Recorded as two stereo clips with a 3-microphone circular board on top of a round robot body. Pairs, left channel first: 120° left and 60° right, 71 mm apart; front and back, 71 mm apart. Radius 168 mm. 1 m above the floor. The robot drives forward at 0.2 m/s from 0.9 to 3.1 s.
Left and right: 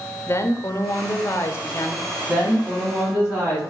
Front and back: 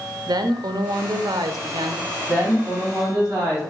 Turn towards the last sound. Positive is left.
turn(degrees=-130)